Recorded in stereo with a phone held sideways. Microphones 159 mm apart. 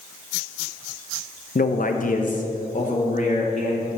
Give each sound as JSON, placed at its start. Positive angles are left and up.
{"t": 1.6, "sound": "a man speaking", "side_deg": 65, "distance_m": 0.6}